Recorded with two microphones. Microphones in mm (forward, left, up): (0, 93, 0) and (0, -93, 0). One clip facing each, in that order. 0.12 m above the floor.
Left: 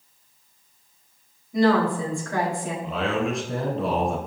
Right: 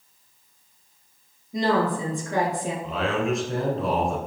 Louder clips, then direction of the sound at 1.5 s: Left 3 dB; 20° right (ahead or behind).